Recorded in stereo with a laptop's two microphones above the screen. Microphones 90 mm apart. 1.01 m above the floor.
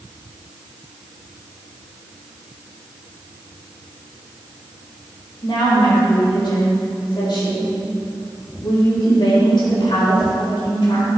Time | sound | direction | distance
5.4 | a woman speaking | 65° left (ahead or behind) | 4.5 m